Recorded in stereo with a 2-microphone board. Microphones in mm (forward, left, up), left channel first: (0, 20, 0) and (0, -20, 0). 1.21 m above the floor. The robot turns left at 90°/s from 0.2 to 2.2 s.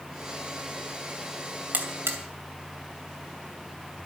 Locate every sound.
1.7 s a buzzer: 45° right (ahead or behind), 2.5 m; by 2.2 s 75° right (ahead or behind), 2.5 m